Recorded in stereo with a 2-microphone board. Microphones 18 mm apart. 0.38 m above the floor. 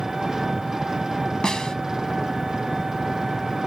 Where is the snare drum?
55° left (ahead or behind).